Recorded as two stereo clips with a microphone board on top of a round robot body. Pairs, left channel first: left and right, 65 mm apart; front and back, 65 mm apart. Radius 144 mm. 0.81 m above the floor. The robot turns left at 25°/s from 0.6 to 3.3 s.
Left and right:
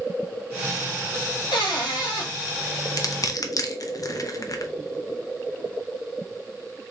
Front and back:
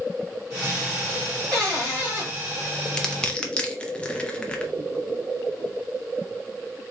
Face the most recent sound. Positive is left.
turn(degrees=70)